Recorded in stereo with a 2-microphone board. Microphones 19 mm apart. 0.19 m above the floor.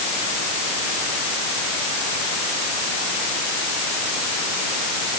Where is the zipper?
I don't hear a zipper.